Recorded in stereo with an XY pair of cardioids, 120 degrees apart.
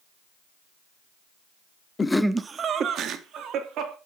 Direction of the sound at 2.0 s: 25° left.